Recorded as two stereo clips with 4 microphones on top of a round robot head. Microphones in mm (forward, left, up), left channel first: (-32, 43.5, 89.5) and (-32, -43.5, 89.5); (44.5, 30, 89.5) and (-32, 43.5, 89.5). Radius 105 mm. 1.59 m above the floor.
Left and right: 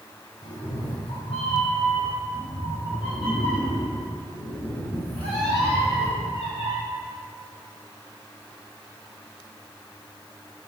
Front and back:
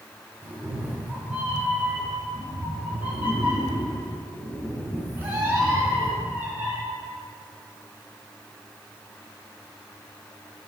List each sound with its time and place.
0.4 s a cat meowing: 100° left, 2.5 m